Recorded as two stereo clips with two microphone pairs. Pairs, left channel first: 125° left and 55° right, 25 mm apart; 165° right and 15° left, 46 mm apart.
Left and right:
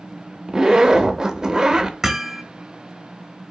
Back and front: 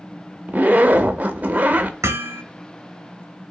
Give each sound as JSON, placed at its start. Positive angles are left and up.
{"t": 0.5, "sound": "a zipper", "azimuth_deg": -10, "distance_m": 0.6}
{"t": 2.0, "sound": "hammering", "azimuth_deg": 20, "distance_m": 0.7}